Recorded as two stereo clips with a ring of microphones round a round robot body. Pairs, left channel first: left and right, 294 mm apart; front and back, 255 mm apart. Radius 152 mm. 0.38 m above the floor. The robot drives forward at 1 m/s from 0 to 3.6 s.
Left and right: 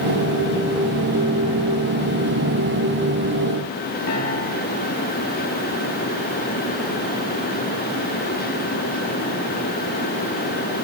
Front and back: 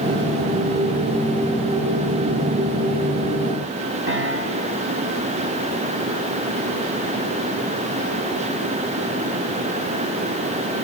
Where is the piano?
135° left, 4 m.